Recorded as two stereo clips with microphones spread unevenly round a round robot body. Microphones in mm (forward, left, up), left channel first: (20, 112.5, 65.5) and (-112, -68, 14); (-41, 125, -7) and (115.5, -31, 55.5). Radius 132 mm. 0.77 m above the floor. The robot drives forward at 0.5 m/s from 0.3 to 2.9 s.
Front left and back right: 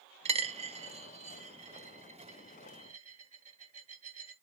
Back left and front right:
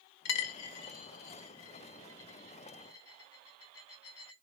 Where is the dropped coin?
170° left, 1.0 m; by 4.3 s 175° left, 2.5 m.